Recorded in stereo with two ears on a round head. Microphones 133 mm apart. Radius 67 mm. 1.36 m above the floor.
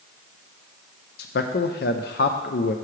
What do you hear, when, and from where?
1.2 s a man speaking: 70° left (ahead or behind), 0.6 m